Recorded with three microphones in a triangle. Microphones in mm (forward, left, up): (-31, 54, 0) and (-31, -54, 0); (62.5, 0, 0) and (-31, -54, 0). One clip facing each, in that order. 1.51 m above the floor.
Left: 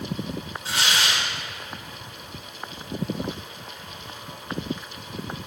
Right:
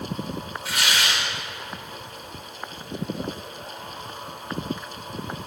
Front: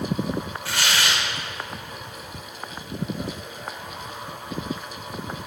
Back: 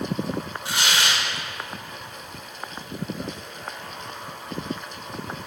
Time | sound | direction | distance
0.7 | tearing paper | 145° left | 2 m